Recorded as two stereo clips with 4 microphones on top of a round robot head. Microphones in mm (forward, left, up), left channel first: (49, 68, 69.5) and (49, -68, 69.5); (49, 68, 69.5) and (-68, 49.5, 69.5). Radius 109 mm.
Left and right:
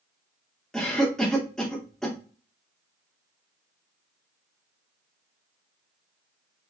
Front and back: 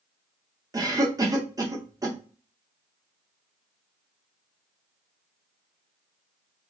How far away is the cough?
About 0.9 m.